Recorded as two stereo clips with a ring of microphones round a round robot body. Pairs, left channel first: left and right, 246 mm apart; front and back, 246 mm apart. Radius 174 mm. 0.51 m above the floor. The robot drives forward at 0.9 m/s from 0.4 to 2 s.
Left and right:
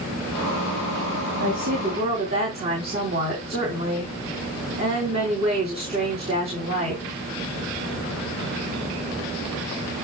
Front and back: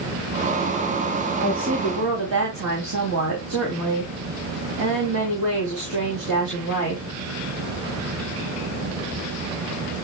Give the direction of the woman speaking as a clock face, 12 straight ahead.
5 o'clock.